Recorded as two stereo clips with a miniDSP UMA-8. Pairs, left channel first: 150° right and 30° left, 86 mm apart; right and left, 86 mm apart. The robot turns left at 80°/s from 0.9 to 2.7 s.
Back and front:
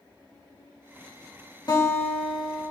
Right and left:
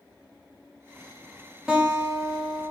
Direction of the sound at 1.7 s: 170° left.